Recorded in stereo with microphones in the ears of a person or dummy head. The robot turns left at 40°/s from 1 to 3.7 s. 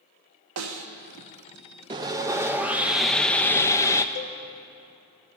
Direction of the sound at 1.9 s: 20° right (ahead or behind).